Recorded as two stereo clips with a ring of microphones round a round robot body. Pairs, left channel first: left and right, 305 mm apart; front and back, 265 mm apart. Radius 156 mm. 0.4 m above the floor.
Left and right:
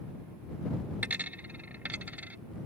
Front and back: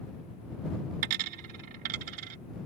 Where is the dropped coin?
175° right.